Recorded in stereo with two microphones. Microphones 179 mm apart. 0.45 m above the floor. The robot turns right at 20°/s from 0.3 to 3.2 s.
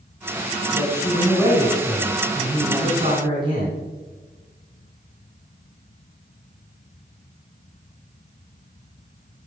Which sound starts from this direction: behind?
A man speaking, at 0.7 s.